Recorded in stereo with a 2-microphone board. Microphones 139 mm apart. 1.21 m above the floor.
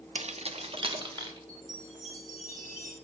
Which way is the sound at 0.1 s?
50° right (ahead or behind).